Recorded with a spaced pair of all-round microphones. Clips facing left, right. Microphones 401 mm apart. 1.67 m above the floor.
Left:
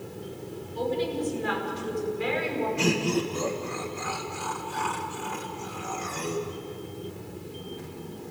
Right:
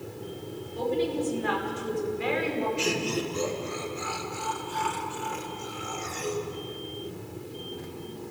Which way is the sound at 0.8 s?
65° right (ahead or behind).